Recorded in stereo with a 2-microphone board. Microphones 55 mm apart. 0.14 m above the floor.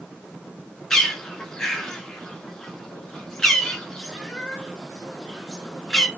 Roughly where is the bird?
Centre.